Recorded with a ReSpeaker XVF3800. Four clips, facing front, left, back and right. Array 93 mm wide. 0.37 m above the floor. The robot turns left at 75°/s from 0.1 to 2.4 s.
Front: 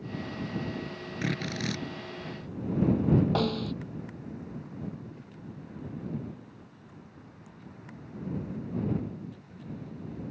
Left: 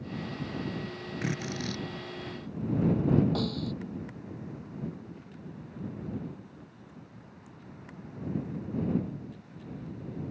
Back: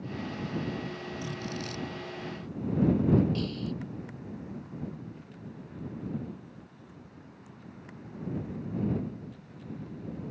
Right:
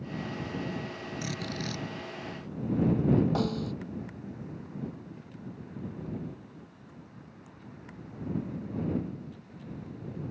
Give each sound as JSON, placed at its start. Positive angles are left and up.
{"t": 1.2, "sound": "a drill", "azimuth_deg": 35}
{"t": 3.4, "sound": "a snare drum", "azimuth_deg": -15}